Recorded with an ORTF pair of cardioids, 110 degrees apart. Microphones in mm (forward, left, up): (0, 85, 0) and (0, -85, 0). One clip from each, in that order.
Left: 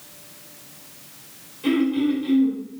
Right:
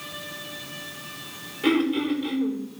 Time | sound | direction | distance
1.6 | throat clearing | 60° right | 4 m